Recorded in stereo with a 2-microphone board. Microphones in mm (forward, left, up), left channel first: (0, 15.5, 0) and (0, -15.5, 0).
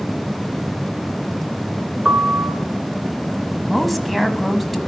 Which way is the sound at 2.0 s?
35° right (ahead or behind).